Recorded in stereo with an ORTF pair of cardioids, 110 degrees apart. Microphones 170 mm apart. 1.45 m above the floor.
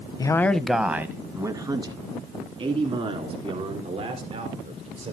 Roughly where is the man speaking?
Ahead.